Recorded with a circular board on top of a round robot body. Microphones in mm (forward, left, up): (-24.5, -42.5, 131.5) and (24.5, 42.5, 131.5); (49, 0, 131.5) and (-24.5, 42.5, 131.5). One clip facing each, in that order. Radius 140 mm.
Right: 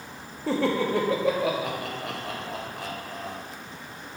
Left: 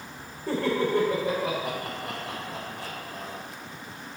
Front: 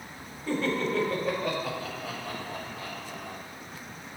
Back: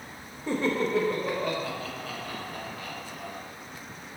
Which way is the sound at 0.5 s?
140° right.